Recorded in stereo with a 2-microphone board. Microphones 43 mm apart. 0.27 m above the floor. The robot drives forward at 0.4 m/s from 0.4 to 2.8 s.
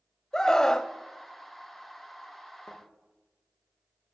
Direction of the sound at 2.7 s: 70° left (ahead or behind).